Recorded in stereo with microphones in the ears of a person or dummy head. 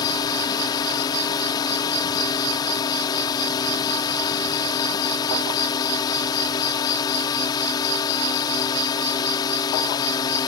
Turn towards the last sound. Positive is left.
turn(degrees=25)  # may be behind; listen again after turning